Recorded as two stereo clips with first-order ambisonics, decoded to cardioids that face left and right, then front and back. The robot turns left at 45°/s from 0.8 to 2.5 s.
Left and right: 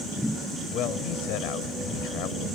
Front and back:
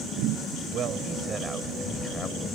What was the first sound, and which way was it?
A man speaking, 135° left.